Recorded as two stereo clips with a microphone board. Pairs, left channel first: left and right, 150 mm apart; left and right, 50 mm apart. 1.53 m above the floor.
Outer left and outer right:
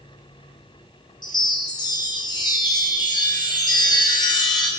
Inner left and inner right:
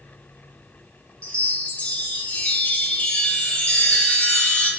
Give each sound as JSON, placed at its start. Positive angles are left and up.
{"t": 1.2, "sound": "a chime", "side_deg": 30, "distance_m": 0.7}